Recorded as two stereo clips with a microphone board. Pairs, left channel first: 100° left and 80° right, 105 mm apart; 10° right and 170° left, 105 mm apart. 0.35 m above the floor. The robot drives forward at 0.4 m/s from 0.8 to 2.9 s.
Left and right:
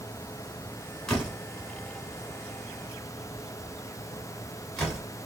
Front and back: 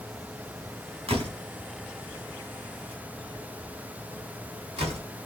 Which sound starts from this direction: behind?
A door slam, at 1.1 s.